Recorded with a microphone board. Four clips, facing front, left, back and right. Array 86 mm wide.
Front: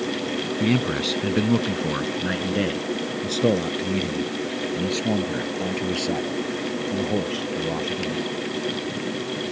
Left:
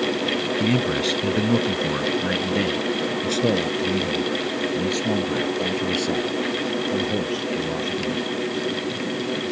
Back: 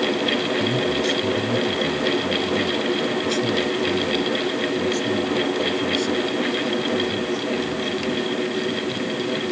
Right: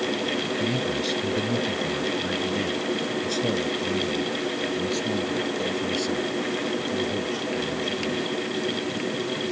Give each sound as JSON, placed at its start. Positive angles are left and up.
{"t": 0.6, "sound": "a man speaking", "azimuth_deg": 40}